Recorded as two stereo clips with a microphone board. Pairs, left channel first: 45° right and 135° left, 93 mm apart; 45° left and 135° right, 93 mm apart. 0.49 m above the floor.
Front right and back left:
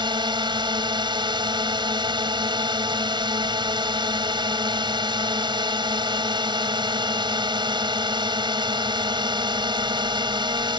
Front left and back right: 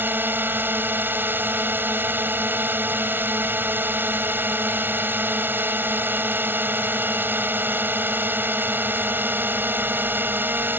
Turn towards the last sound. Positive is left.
turn(degrees=160)